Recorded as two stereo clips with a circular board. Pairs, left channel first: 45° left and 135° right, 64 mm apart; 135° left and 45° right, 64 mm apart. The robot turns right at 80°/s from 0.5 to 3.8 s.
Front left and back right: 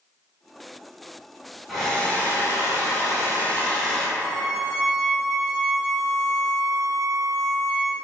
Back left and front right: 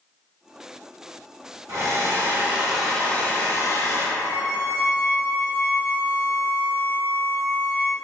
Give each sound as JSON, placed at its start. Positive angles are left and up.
{"t": 1.7, "sound": "a hair dryer", "azimuth_deg": -45, "distance_m": 1.1}
{"t": 4.2, "sound": "a violin", "azimuth_deg": -85, "distance_m": 1.0}